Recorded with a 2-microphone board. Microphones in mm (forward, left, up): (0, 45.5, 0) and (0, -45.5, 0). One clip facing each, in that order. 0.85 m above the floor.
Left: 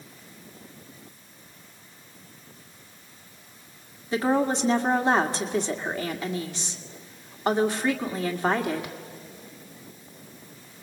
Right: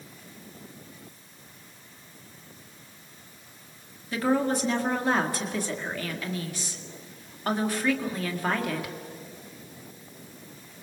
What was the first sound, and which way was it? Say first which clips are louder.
A woman speaking: left 2 dB; 25° left (ahead or behind).